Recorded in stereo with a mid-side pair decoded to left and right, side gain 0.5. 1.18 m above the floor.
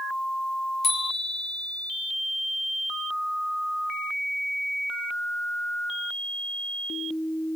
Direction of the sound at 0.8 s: 55° left.